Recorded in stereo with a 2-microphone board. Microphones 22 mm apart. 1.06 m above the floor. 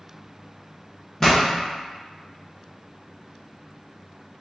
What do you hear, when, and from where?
1.2 s a pop: 15° left (ahead or behind), 1.2 m